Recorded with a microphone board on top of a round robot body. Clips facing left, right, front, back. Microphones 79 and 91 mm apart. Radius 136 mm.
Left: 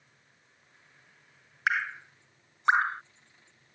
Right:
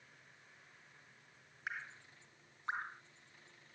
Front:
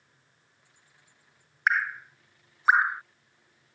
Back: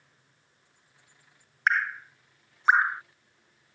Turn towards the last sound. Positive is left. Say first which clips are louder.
# left 17 dB, even
turn(degrees=85)